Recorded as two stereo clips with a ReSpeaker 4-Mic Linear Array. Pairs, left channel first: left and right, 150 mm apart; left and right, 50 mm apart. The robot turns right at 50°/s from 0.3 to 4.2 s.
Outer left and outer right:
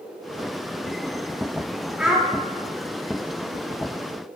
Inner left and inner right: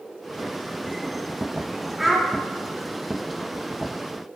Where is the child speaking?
5° right (ahead or behind), 0.5 m; by 2.3 s 5° left (ahead or behind), 0.5 m.